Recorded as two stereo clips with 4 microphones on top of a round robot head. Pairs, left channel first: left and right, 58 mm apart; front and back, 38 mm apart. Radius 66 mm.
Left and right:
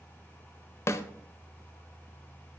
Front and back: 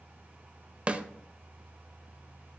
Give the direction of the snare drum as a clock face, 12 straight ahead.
8 o'clock.